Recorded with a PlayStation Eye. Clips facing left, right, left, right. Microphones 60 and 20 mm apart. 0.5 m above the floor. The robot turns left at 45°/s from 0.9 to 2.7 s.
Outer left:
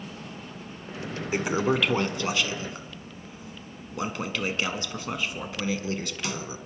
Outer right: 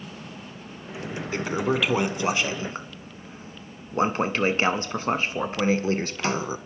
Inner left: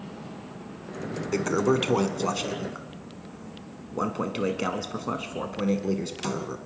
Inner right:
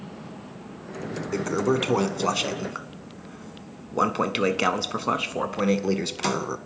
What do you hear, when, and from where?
1.3 s a toilet flushing: 20° left, 0.8 m; by 6.6 s 45° right, 0.8 m